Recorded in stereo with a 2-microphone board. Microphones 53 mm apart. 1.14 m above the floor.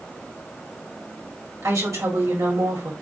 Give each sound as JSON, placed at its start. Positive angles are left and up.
{"t": 1.6, "sound": "a woman speaking", "side_deg": -70, "distance_m": 1.8}